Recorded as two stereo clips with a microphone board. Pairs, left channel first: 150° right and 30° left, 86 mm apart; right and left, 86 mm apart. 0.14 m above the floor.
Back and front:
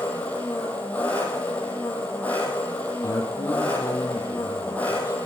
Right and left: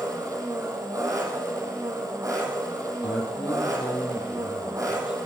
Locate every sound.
0.0 s an engine running: 140° left, 3.5 m
3.0 s a man speaking: 105° right, 4.5 m